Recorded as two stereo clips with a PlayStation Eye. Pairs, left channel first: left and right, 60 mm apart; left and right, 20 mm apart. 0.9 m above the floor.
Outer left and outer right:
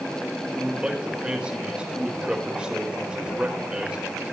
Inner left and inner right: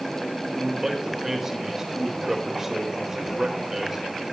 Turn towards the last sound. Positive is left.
turn(degrees=-15)  # may be behind; listen again after turning